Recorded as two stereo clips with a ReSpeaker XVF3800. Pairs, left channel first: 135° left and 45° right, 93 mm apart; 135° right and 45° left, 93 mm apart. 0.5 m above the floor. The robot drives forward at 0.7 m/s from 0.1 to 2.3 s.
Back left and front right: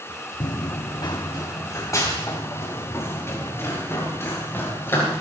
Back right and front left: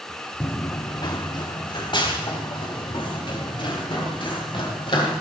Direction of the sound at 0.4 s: 160° left.